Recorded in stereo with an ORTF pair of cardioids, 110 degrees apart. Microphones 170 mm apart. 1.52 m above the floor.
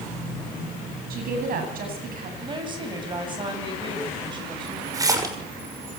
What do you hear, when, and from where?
1.1 s a woman speaking: 60° right, 9.5 m
2.4 s a woman speaking: 30° right, 10 m
4.9 s a splash: 20° right, 6.5 m